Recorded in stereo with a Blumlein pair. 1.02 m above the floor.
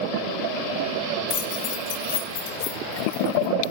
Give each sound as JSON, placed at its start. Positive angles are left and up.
{"t": 1.3, "sound": "keys jangling", "azimuth_deg": 30, "distance_m": 0.8}